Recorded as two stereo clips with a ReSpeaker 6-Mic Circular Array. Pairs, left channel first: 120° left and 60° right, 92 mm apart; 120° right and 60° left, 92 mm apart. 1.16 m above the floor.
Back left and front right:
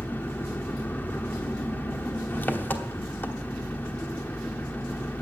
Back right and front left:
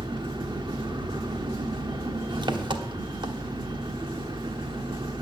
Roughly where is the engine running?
Ahead left.